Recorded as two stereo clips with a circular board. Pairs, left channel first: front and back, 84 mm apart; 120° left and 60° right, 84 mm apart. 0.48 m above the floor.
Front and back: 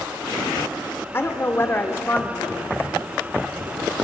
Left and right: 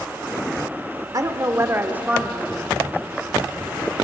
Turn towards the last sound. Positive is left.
turn(degrees=65)